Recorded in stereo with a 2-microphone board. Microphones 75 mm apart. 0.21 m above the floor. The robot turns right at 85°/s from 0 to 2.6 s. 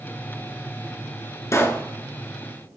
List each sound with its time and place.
1.5 s a pop: 40° left (ahead or behind), 1.2 m; by 1.8 s 15° left (ahead or behind), 1.2 m